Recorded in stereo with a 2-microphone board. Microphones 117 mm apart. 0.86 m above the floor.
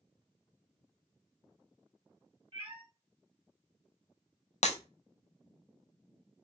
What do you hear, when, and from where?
2.5 s a cat meowing: 55° right (ahead or behind), 2.0 m
4.6 s breaking glass: 80° left, 0.6 m